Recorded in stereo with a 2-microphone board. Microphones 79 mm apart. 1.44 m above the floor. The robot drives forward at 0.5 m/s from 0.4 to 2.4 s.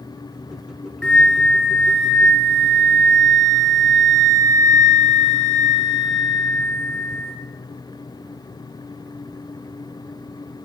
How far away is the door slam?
I don't hear a door slam.